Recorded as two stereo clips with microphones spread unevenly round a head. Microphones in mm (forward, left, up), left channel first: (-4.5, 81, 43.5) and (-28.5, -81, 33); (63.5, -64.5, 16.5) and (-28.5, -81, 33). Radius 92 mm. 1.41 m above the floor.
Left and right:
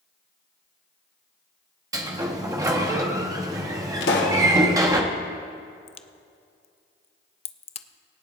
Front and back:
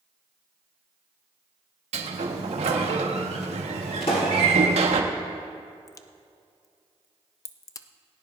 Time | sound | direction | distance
1.9 | a sliding door | 170° right | 1.3 m
4.0 | a pop | 65° left | 1.4 m
5.9 | a crack | 35° left | 0.5 m